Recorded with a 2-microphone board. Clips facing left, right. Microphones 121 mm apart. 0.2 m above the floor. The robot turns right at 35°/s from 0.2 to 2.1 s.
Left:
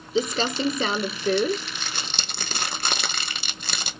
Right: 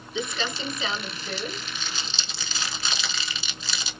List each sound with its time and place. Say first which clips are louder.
0.1 s crumpling: left 7 dB; 40° left (ahead or behind), 0.5 m; by 3.9 s 65° left (ahead or behind), 0.5 m